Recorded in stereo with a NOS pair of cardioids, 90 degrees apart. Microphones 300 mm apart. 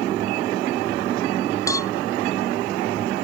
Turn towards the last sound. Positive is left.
turn(degrees=10)